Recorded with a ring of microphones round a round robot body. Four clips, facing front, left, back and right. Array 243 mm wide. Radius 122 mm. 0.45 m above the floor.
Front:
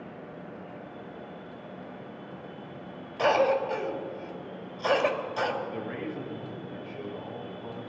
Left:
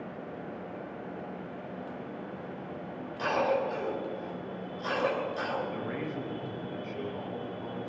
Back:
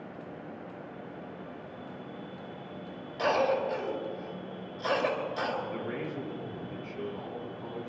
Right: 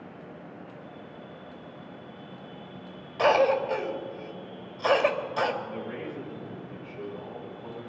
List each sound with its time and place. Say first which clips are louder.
3.2 s a cough: right 6 dB, front 3 dB; 75° right, 2.5 m
5.6 s a man speaking: left 1 dB, front 1 dB; 135° left, 5 m